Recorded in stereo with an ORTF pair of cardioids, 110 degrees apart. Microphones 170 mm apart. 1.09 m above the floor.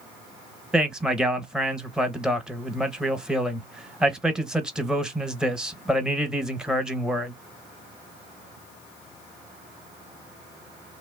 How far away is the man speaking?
About 0.7 m.